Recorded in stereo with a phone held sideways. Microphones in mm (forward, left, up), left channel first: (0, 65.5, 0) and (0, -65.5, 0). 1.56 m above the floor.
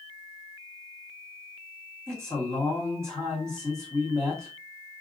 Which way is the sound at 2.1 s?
15° right (ahead or behind).